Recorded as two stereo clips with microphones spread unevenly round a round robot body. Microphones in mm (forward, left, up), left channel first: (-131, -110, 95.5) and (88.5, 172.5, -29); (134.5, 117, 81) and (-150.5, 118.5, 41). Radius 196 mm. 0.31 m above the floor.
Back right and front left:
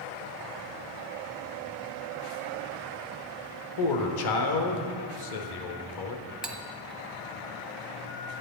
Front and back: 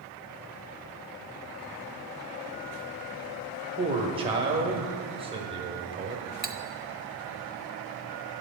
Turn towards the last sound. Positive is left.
turn(degrees=130)